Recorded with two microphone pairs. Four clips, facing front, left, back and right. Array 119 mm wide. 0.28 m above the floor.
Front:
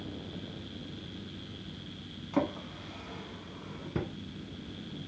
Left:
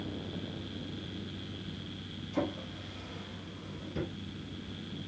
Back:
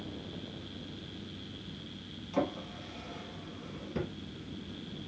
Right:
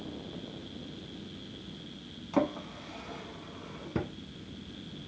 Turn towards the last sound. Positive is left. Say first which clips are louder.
# right 5 dB, front 2 dB
turn(degrees=-65)